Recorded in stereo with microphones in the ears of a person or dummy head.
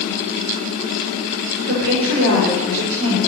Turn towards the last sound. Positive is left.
turn(degrees=-70)  # may be behind; listen again after turning